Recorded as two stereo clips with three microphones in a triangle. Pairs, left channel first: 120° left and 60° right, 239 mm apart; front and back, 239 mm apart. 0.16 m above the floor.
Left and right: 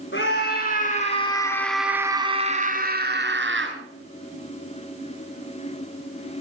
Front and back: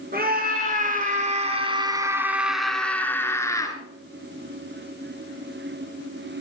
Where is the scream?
140° left, 2.5 m; by 3.8 s 70° right, 3 m.